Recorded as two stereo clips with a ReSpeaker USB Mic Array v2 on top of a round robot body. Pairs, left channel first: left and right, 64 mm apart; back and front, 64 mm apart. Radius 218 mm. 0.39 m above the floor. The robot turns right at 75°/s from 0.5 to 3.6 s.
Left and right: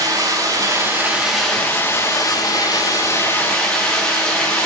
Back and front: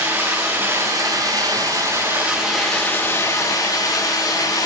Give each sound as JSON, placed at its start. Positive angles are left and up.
{"t": 0.0, "sound": "running water", "azimuth_deg": -70, "distance_m": 7.5}